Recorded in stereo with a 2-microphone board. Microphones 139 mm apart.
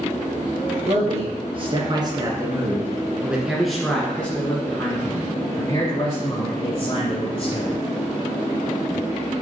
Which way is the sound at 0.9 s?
50° right (ahead or behind).